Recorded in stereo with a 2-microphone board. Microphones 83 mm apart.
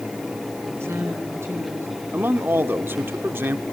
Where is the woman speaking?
30° right (ahead or behind), 5 m.